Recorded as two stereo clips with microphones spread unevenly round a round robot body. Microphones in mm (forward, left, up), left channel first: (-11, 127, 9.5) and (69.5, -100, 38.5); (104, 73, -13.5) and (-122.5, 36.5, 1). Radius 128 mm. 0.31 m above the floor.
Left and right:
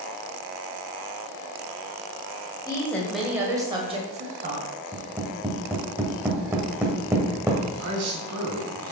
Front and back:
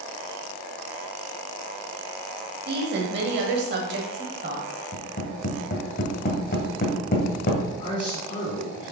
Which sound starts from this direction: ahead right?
A man speaking, at 7.8 s.